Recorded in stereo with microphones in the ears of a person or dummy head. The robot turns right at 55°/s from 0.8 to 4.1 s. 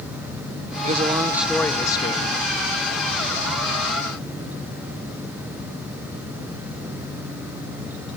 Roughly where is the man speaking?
Ahead right.